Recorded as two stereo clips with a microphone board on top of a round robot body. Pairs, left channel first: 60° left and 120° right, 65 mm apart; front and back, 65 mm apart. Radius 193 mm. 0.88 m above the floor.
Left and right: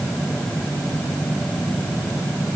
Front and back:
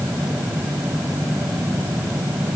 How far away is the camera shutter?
No camera shutter in this recording.